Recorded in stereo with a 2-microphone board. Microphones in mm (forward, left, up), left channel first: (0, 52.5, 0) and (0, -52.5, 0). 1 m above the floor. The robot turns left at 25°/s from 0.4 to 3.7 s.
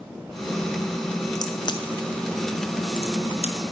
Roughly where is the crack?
Left.